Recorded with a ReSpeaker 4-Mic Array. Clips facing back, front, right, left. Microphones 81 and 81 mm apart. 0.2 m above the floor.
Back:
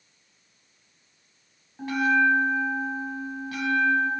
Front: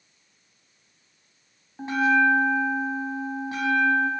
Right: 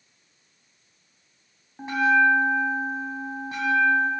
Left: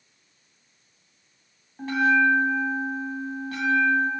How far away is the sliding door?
No sliding door in this recording.